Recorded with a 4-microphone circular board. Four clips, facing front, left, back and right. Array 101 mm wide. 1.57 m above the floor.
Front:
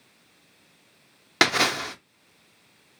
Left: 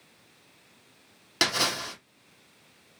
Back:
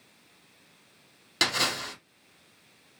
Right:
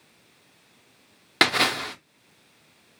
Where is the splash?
30° right, 0.6 m.